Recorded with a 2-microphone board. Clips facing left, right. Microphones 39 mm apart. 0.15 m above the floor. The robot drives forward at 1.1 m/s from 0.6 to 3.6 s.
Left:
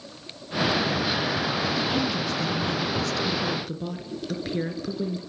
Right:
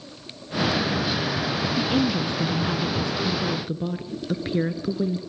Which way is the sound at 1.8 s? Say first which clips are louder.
Right 3 dB; 25° right (ahead or behind).